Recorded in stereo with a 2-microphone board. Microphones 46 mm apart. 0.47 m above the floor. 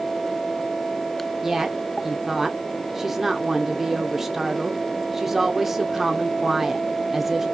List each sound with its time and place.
1.4 s a woman speaking: 5° right (ahead or behind), 0.8 m